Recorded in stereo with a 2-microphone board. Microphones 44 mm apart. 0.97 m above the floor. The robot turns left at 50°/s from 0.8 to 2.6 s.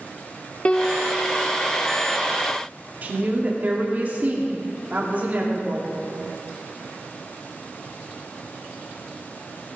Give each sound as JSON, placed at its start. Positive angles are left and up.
{"t": 0.7, "sound": "a piano", "side_deg": 25, "distance_m": 0.7}
{"t": 3.0, "sound": "a woman speaking", "side_deg": -40, "distance_m": 2.5}